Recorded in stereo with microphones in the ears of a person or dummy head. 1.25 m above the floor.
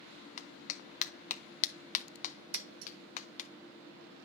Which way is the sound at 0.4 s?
35° left (ahead or behind).